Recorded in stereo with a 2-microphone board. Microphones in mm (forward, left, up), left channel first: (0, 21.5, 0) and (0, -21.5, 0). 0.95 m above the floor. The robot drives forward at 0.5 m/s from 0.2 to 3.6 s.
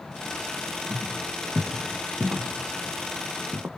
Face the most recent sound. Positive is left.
turn(degrees=-75)  # may be behind; listen again after turning